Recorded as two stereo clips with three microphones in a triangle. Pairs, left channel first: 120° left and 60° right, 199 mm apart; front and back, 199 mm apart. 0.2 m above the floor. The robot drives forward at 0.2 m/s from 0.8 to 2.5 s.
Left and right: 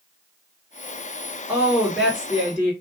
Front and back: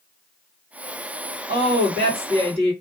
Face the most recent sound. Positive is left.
turn(degrees=-150)